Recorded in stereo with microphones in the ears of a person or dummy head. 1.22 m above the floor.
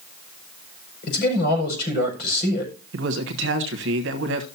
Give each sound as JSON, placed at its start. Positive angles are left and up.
{"t": 1.0, "sound": "a man speaking", "side_deg": 55, "distance_m": 5.5}
{"t": 2.9, "sound": "a man speaking", "side_deg": -55, "distance_m": 1.1}